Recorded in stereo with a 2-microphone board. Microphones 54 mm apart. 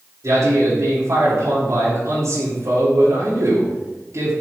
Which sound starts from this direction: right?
A man speaking, at 0.2 s.